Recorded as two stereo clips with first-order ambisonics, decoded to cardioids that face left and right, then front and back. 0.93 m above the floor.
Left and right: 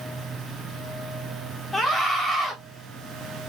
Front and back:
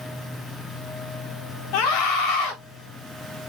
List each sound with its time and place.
1.7 s a scream: 10° left, 3.5 m